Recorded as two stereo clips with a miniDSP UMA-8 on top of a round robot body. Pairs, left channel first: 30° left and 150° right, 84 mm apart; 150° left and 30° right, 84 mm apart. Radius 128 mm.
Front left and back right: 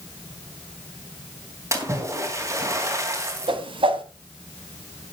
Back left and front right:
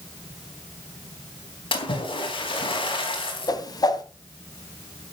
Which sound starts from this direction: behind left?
A splash, at 1.7 s.